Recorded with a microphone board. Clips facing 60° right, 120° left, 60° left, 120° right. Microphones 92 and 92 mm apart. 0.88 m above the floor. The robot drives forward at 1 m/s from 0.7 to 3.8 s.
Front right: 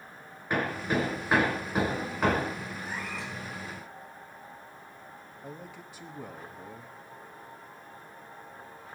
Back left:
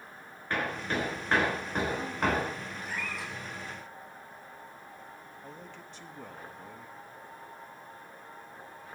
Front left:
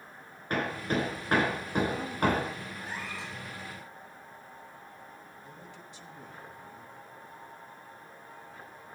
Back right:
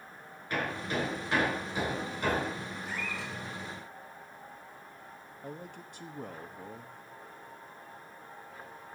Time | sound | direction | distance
0.5 | hammering | 20° left | 4.5 m
2.8 | a cat meowing | 5° left | 5.5 m
5.4 | a man speaking | 140° right | 1.3 m